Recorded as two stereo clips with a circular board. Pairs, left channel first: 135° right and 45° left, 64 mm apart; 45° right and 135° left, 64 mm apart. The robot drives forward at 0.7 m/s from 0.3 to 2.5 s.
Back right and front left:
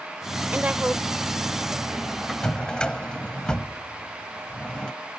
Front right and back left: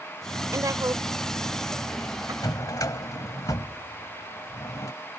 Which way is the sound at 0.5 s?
110° left.